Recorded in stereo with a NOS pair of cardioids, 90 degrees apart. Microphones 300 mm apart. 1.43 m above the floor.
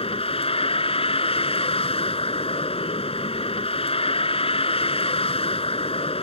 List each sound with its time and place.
0.0 s a vehicle: 20° left